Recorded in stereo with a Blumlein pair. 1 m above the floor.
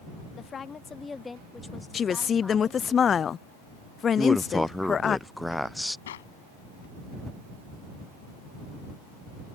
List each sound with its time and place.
0.3 s a woman speaking: 25° left; by 2.9 s straight ahead
1.9 s a woman speaking: 20° left
4.2 s a man speaking: straight ahead
6.1 s a clap: 60° left